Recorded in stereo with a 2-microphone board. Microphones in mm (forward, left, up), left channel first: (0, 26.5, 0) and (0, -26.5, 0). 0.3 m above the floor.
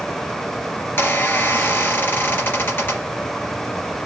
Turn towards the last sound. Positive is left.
turn(degrees=45)  # may be behind; listen again after turning